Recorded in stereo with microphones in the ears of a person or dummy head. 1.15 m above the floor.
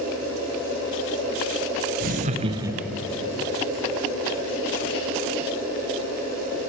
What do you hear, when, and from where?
2.0 s laughter: 45° right (ahead or behind), 0.9 m; by 3.2 s 20° left (ahead or behind), 0.7 m